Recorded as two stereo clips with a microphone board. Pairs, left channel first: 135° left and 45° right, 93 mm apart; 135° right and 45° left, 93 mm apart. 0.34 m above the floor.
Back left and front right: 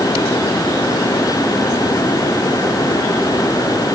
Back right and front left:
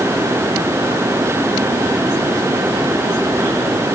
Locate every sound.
Only background noise.